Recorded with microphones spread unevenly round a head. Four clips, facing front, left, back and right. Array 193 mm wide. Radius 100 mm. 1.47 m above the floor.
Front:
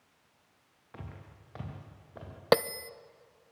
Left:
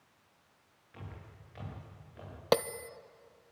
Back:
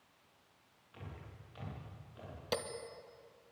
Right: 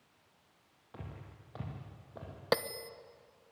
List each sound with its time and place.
0.9 s footsteps: 35° right, 8.5 m; by 2.3 s 40° right, 8.5 m
2.5 s a bell: 15° left, 0.6 m